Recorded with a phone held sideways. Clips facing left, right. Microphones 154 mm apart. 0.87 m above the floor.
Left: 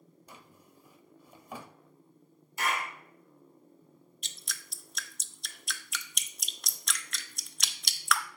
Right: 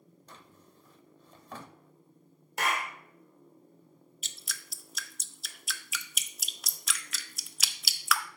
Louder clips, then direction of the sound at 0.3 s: Even; 10° left (ahead or behind).